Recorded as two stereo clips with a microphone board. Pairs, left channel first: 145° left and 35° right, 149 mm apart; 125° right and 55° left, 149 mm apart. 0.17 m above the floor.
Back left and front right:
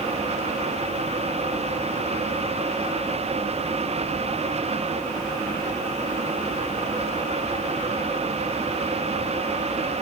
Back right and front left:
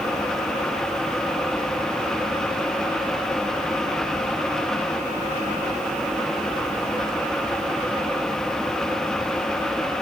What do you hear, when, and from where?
Only background noise.